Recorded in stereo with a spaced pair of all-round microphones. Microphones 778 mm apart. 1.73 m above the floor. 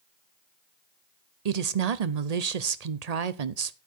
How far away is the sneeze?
I don't hear a sneeze.